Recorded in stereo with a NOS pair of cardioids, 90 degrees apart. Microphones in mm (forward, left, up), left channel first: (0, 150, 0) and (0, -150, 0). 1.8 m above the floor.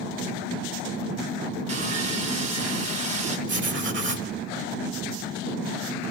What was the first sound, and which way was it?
Sawing, 60° right.